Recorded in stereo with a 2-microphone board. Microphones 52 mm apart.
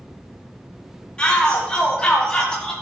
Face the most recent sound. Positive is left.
turn(degrees=15)  # may be behind; listen again after turning